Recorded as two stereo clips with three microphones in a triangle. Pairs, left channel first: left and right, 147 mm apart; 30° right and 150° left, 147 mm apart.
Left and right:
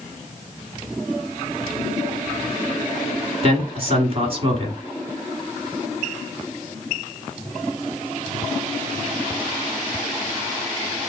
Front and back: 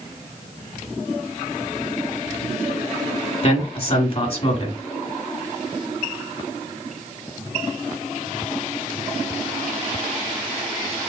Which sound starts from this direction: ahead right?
A man speaking, at 3.4 s.